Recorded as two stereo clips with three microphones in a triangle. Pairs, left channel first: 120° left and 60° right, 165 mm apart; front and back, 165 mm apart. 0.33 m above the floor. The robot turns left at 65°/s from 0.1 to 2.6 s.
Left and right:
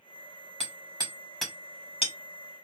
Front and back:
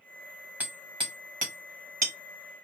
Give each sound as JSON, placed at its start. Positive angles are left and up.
{"t": 0.6, "sound": "hammering", "azimuth_deg": -100, "distance_m": 1.6}